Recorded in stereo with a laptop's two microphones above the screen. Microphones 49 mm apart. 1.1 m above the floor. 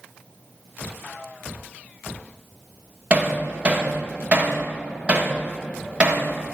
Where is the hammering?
25° right (ahead or behind), 1.3 m.